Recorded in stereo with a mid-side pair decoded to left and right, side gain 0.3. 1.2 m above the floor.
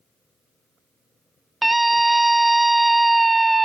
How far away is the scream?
About 0.8 m.